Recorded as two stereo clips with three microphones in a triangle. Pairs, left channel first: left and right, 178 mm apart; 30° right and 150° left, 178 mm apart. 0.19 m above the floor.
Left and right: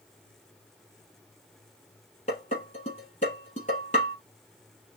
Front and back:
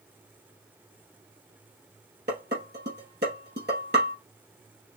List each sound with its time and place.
2.3 s dishes clattering: 135° left, 3 m